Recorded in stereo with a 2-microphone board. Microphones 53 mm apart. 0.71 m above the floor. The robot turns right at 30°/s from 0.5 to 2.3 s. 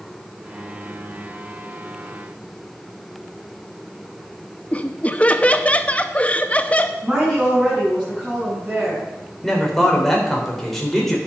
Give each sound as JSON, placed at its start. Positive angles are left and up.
{"t": 4.7, "sound": "laughter", "side_deg": 25, "distance_m": 0.6}
{"t": 7.0, "sound": "a woman speaking", "side_deg": -15, "distance_m": 7.0}
{"t": 9.4, "sound": "a man speaking", "side_deg": 5, "distance_m": 3.0}